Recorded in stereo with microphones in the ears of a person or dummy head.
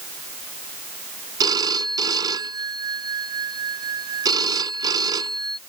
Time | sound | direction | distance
1.4 | a phone ringing | 25° right (ahead or behind) | ?